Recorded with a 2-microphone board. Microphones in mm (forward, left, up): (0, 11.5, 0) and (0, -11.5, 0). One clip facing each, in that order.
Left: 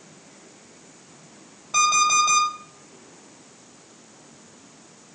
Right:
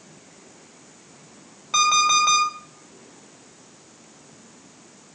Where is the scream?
I don't hear a scream.